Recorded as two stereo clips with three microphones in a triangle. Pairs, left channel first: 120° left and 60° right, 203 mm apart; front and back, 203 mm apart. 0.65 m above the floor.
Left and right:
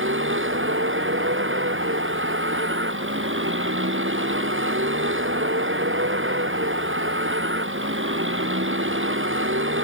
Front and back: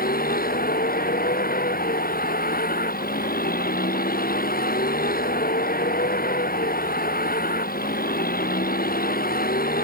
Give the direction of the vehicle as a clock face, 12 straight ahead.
1 o'clock.